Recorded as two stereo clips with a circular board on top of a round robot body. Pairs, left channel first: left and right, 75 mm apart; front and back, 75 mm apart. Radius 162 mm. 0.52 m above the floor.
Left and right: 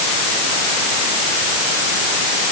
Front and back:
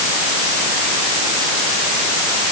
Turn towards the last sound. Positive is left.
No sound to turn to.